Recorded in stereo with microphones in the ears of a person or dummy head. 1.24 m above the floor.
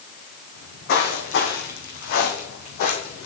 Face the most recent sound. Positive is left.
turn(degrees=45)  # may be behind; listen again after turning